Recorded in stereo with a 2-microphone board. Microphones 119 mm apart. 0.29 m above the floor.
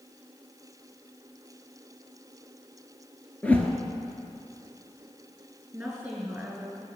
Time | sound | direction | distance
3.4 | a whoosh | 15° left (ahead or behind) | 1.3 m
5.7 | a woman speaking | 10° right (ahead or behind) | 3.5 m